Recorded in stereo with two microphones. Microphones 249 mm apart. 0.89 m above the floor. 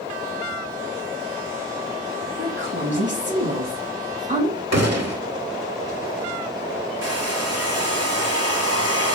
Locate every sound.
2.4 s a woman speaking: 55° right (ahead or behind), 4.5 m; by 4.6 s 25° right (ahead or behind), 4.5 m
4.7 s a gunshot: 90° right, 1.8 m
7.0 s a hair dryer: 75° right (ahead or behind), 3 m